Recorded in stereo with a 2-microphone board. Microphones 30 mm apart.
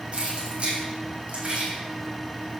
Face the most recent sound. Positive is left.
turn(degrees=-40)  # may be behind; listen again after turning